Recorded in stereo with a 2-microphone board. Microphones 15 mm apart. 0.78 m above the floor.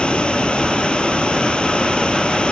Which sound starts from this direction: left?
Running water, at 0.0 s.